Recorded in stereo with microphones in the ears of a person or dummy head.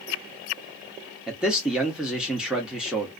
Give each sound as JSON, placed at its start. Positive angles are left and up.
{"t": 1.3, "sound": "a man speaking", "side_deg": -5, "distance_m": 0.6}